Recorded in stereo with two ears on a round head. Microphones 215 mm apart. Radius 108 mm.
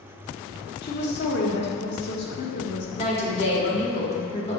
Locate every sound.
0.8 s a woman speaking: 50° left (ahead or behind), 1.1 m
3.0 s a woman speaking: 25° left (ahead or behind), 1.3 m